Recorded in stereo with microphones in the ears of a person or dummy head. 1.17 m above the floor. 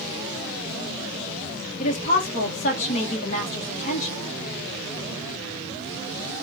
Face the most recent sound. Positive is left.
turn(degrees=40)  # may be behind; listen again after turning